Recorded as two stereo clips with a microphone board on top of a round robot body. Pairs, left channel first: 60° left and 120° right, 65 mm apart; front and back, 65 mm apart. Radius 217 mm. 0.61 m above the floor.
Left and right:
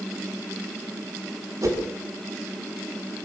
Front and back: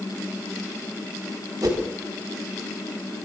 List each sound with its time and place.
1.6 s a whoosh: 155° right, 6.5 m